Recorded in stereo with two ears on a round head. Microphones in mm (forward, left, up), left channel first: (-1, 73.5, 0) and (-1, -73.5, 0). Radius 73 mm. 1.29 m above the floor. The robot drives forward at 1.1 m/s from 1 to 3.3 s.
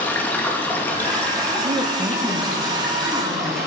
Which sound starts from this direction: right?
A woman speaking, at 1.6 s.